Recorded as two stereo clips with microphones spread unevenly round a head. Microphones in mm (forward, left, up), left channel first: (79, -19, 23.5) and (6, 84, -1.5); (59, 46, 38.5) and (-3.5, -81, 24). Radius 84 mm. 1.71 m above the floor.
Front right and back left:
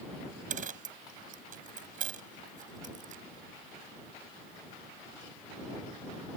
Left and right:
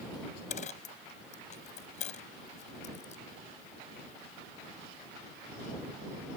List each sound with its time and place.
0.5 s a dropped coin: 110° left